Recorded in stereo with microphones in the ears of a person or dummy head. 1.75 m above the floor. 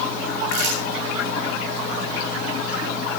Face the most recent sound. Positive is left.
turn(degrees=-55)  # may be behind; listen again after turning